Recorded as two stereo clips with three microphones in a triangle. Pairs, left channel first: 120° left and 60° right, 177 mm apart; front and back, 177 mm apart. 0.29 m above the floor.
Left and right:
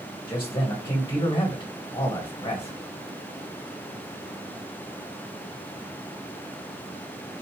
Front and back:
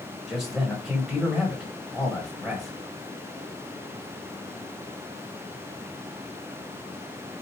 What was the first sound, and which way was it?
A man speaking, 95° left.